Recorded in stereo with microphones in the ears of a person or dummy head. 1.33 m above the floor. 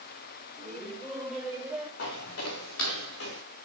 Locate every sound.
0.6 s laughter: 5° left (ahead or behind), 3 m; by 1.9 s 10° right (ahead or behind), 3 m
2.0 s footsteps: 70° left (ahead or behind), 4 m; by 3.4 s 75° left (ahead or behind), 4.5 m